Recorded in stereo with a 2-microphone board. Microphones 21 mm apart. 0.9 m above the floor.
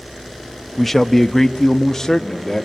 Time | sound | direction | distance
0.8 | a man speaking | 5° left (ahead or behind) | 0.8 m